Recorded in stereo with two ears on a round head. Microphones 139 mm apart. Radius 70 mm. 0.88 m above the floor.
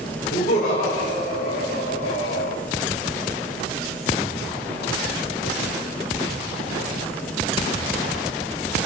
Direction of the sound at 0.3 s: 50° left (ahead or behind).